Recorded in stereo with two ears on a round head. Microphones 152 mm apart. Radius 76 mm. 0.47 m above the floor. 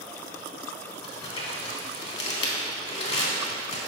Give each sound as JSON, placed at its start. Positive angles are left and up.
{"t": 1.0, "sound": "crumpling", "side_deg": 40, "distance_m": 1.2}